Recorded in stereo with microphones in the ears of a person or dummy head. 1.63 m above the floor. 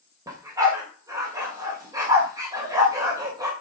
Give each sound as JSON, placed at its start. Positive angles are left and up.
{"t": 0.3, "sound": "a dog barking", "side_deg": -15, "distance_m": 2.5}